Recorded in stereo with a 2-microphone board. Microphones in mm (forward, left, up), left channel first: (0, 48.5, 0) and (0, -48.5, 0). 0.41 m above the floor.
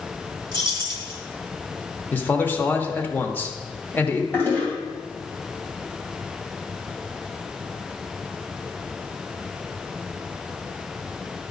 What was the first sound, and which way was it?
Keys jangling, 50° right (ahead or behind).